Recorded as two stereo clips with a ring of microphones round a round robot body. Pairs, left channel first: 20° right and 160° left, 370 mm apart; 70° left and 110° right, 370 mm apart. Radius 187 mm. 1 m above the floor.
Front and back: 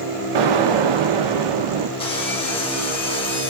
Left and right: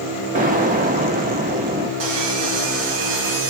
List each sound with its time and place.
0.3 s an explosion: straight behind, 1.2 m
2.0 s sawing: 100° right, 3 m